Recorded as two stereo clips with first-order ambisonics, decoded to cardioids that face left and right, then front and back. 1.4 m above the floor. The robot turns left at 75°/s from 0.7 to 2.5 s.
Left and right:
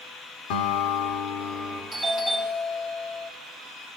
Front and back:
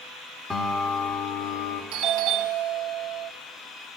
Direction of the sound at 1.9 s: Straight behind.